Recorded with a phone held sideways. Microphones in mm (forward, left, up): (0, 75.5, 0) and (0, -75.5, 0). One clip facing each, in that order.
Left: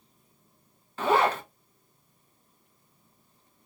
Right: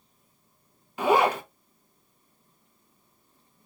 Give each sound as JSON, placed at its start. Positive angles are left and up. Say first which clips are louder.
{"t": 1.0, "sound": "a zipper", "louder": "right 2 dB", "side_deg": -15, "distance_m": 0.6}